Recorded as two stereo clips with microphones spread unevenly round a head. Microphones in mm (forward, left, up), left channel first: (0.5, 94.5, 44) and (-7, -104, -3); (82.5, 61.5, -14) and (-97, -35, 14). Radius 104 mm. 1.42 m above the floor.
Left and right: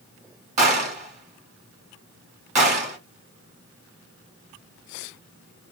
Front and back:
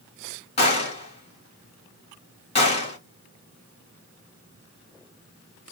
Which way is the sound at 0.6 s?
35° right.